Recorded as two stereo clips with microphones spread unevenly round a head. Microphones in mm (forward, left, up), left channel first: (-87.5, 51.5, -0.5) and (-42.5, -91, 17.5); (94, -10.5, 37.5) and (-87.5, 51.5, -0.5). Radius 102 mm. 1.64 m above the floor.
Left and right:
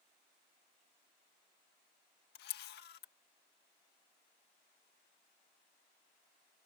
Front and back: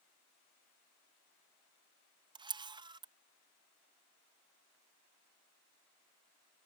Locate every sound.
2.4 s a camera shutter: 90° left